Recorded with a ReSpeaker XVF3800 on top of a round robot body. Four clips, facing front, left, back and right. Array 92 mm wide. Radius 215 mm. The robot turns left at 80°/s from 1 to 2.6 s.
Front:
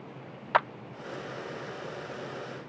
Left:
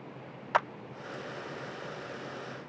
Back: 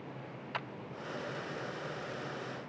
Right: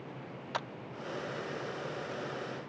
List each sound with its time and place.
0.5 s a clap: 25° left